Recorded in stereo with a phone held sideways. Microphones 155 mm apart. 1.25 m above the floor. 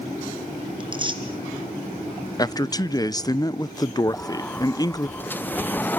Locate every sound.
0.8 s tearing paper: 30° right (ahead or behind), 3 m
2.4 s a man speaking: 25° left (ahead or behind), 0.8 m
4.1 s a sliding door: 10° left (ahead or behind), 0.6 m